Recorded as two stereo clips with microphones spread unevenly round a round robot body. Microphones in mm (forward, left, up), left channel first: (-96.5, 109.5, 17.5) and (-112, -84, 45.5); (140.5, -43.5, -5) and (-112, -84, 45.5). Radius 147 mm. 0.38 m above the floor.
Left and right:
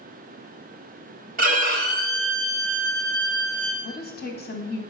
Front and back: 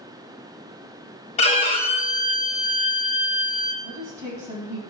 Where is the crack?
I don't hear a crack.